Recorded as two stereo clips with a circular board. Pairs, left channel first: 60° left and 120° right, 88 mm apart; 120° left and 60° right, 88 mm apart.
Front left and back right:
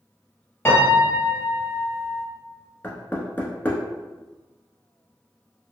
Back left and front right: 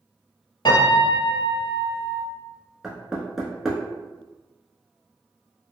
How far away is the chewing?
I don't hear chewing.